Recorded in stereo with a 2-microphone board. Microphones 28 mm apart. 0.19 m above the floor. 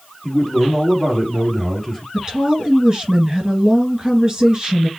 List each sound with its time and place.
0.2 s a man speaking: 5° left (ahead or behind), 4 m
2.1 s a woman speaking: 20° right (ahead or behind), 2.5 m